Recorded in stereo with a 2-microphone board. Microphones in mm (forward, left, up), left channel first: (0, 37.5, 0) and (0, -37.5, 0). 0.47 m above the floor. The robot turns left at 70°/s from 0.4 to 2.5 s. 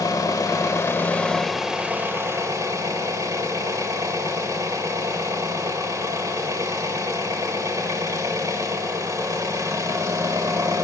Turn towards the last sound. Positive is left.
turn(degrees=-70)